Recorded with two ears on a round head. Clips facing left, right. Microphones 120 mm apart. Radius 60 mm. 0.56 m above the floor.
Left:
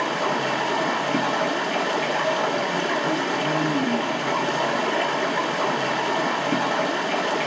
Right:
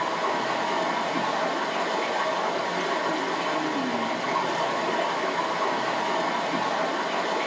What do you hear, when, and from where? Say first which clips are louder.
0.0 s running water: left 2 dB; 75° left (ahead or behind), 1.3 m